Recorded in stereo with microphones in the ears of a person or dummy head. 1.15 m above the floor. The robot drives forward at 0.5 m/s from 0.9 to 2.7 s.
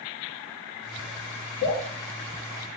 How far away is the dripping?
About 2.5 m.